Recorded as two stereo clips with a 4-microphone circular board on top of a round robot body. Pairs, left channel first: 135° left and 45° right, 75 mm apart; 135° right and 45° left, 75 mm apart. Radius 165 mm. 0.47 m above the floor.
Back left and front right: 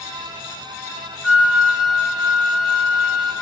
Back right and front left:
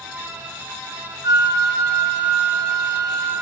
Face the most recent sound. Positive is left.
turn(degrees=40)